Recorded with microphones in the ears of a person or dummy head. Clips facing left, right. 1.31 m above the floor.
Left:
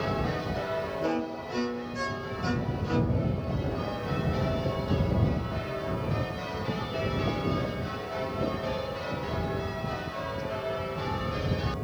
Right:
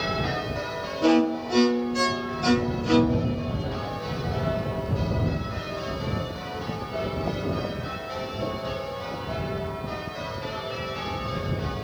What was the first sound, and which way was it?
A violin, 80° right.